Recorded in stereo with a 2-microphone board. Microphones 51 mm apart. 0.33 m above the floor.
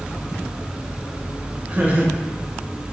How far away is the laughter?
About 1.3 m.